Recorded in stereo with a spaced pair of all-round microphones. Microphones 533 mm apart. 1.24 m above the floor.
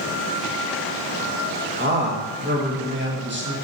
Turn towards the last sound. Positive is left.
turn(degrees=-20)  # may be behind; listen again after turning